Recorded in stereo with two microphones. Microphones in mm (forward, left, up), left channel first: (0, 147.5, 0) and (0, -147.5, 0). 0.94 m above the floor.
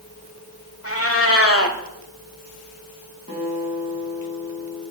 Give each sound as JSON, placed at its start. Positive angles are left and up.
{"t": 0.8, "sound": "a cat meowing", "side_deg": 55, "distance_m": 1.1}
{"t": 3.3, "sound": "a guitar", "side_deg": -20, "distance_m": 4.5}